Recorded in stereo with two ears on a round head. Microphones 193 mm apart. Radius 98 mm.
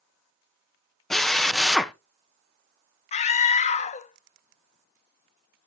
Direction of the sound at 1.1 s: Centre (ahead or behind).